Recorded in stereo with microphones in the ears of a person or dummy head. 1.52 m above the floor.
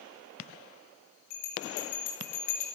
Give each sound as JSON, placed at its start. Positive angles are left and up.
{"t": 1.3, "sound": "a bell", "side_deg": 60, "distance_m": 2.0}